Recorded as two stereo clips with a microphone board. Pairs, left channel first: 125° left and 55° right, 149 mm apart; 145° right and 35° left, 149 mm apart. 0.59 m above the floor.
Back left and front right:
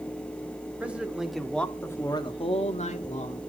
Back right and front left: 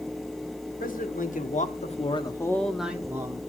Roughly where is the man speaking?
Behind right.